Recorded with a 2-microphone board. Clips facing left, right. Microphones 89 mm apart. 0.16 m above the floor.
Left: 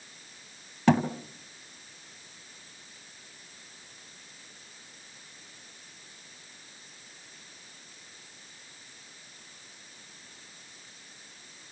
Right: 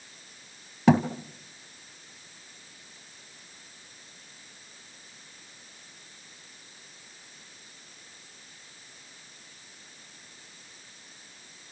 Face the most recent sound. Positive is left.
turn(degrees=-10)  # may be behind; listen again after turning